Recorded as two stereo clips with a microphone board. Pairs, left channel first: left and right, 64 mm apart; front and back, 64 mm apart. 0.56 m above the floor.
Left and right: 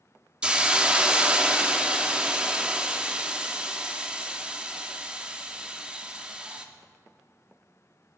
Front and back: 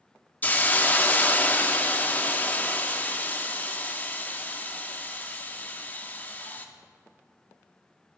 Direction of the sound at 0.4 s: 30° right.